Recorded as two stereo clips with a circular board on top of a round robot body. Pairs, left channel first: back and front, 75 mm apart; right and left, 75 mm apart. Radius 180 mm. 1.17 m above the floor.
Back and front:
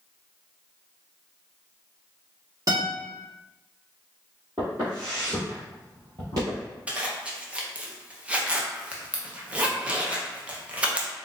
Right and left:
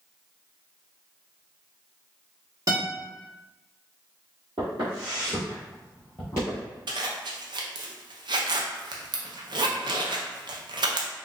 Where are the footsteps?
65° left, 1.6 m; by 6.7 s 50° right, 1.2 m.